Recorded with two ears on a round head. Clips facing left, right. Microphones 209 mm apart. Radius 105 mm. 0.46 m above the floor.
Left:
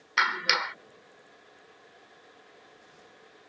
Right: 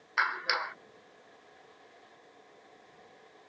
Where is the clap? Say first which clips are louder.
Left 4 dB; 45° left (ahead or behind).